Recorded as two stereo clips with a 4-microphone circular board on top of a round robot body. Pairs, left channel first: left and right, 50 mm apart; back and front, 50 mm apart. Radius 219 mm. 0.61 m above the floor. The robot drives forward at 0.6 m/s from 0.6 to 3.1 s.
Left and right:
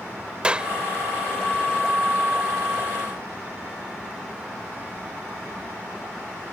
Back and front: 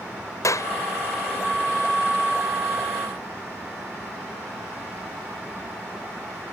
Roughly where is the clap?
Behind.